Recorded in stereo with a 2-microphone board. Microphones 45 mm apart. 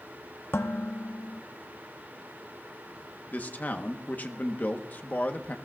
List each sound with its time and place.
0.5 s dishes clattering: 55° left (ahead or behind), 0.8 m
3.3 s a man speaking: 40° left (ahead or behind), 1.1 m